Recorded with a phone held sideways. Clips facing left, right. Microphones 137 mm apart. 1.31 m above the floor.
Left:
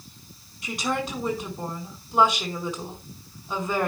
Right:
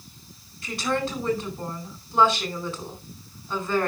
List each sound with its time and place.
0.6 s a woman speaking: 15° left (ahead or behind), 5 m